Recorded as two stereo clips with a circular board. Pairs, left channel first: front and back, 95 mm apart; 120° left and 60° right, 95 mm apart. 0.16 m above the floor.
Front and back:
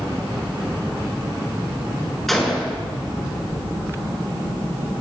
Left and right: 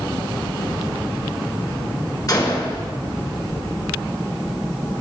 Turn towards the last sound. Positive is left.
turn(degrees=90)